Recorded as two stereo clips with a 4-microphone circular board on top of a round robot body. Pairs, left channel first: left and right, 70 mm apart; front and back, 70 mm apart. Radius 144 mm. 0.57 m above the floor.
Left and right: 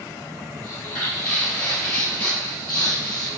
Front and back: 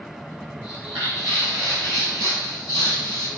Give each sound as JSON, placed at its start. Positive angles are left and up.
{"t": 0.6, "sound": "footsteps", "azimuth_deg": 145, "distance_m": 0.8}